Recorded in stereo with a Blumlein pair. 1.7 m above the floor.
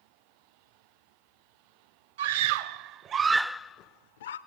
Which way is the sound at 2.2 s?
55° right.